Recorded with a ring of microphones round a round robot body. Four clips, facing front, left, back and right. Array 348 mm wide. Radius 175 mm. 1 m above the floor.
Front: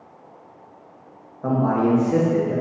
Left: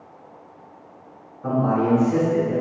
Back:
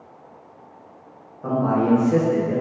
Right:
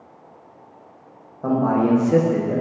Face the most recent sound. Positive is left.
turn(degrees=-115)